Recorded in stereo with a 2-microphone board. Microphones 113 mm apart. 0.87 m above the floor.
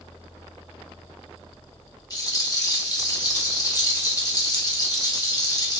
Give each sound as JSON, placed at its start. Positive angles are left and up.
{"t": 2.1, "sound": "a rattle", "side_deg": 35, "distance_m": 0.6}